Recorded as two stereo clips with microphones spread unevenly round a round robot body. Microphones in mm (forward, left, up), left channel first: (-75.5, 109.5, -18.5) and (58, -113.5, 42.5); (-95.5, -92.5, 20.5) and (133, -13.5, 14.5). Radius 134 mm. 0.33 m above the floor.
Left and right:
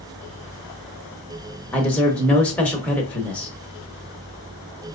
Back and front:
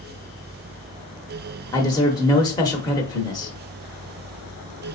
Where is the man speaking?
150° left, 0.8 m.